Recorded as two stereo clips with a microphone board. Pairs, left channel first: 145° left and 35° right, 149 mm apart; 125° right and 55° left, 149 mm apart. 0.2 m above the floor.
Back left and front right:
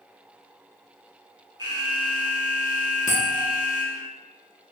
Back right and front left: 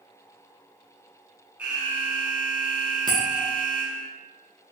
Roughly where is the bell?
Behind left.